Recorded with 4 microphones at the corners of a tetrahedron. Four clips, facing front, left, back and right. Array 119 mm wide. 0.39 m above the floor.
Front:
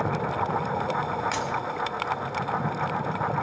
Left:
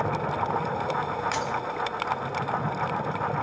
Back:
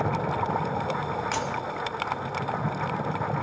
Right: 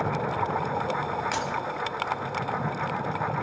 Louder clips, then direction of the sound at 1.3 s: Left 1 dB, front 1 dB; 110° right.